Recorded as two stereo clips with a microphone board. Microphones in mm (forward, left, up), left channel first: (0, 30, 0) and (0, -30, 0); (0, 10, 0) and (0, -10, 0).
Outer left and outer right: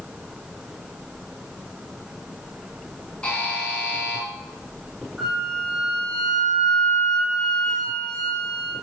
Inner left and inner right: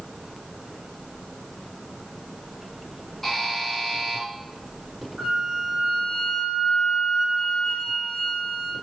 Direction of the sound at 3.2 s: 20° left (ahead or behind).